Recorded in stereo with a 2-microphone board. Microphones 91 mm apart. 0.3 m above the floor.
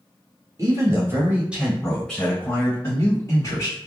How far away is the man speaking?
About 1.4 m.